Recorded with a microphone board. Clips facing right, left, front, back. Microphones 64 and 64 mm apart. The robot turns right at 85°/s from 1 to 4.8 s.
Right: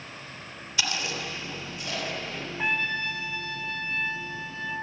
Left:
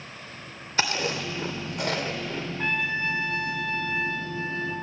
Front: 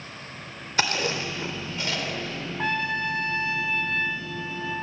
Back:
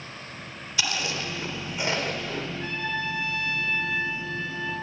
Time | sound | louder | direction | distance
0.8 | chewing | left 4 dB, front 4 dB | 45° left | 3 m
2.6 | a trumpet | even, front 7 dB | 10° right | 2.0 m